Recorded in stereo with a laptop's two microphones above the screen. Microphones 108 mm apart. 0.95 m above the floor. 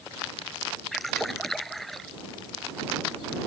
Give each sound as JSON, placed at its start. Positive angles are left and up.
{"t": 0.9, "sound": "a splash", "side_deg": 0}